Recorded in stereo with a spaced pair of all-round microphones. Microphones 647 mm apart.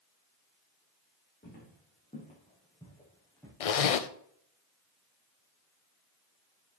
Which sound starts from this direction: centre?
Footsteps, at 1.4 s.